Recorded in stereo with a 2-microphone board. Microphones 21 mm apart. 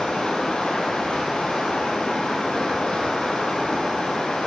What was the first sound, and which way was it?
Running water, 55° left (ahead or behind).